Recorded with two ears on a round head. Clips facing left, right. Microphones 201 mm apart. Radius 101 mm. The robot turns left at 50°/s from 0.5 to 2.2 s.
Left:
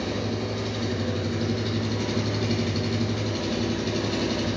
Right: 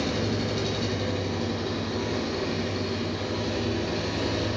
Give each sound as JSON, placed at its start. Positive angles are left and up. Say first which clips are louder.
{"t": 0.0, "sound": "an engine running", "louder": "right 1 dB", "azimuth_deg": -160, "distance_m": 1.4}